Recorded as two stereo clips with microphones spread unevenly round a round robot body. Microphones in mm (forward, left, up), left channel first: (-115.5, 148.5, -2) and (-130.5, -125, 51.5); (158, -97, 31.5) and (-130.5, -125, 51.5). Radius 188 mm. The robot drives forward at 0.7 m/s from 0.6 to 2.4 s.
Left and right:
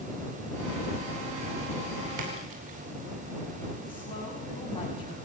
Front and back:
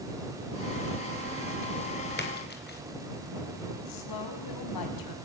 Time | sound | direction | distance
2.2 | a splash | 50° right | 5 m
3.8 | a woman speaking | 10° left | 5.5 m